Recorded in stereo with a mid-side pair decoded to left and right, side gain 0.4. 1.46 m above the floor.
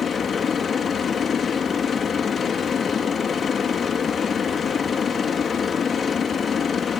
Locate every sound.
0.0 s a machine running: 45° left